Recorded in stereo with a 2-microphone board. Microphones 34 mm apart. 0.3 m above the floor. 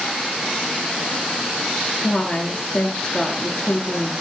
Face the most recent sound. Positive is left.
turn(degrees=20)  # may be behind; listen again after turning